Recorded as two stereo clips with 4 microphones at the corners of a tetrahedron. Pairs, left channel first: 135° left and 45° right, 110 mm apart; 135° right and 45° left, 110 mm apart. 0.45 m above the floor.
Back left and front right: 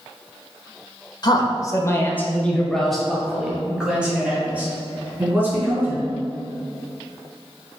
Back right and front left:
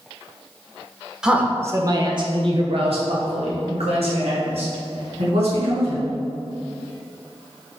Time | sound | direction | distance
1.2 | a man speaking | 125° left | 1.3 m